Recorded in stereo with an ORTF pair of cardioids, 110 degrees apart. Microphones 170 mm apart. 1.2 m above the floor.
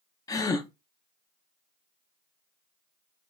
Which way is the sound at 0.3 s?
20° left.